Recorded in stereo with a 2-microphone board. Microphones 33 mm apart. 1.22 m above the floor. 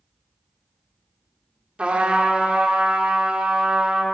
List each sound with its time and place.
1.8 s a trumpet: 40° right (ahead or behind), 1.2 m